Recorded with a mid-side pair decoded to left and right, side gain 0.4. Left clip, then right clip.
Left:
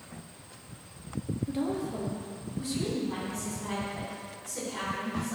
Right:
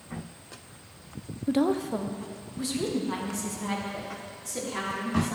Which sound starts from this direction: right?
A woman speaking, at 1.5 s.